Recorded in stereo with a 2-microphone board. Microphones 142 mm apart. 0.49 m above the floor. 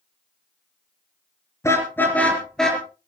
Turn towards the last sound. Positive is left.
turn(degrees=0)  # may be behind; listen again after turning